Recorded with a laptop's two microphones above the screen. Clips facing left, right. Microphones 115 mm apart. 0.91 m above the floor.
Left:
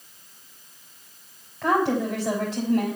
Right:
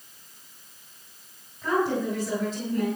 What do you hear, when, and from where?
1.6 s a woman speaking: 75° left (ahead or behind), 4 m